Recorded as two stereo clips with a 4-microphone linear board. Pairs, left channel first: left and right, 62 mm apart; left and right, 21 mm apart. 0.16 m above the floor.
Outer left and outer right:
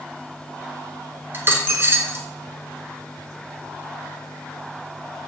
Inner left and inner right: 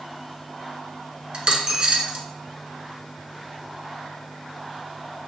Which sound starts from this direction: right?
A dropped coin, at 1.3 s.